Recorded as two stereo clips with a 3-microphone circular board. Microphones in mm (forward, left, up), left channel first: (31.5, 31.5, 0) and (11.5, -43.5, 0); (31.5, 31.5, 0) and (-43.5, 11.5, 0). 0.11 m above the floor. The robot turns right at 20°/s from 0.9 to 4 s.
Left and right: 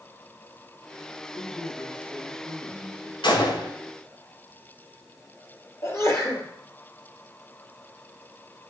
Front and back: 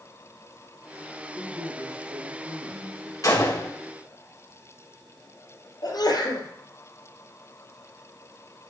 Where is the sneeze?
30° left, 3.5 m.